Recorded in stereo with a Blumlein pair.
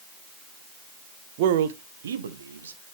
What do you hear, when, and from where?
1.4 s a man speaking: 50° right, 0.8 m; by 2.8 s 70° right, 1.6 m